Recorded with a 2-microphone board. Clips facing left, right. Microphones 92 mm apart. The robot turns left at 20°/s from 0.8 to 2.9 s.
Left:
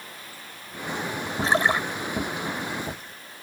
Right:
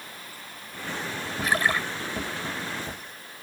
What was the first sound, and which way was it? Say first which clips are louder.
A splash: left 3 dB; 30° left (ahead or behind).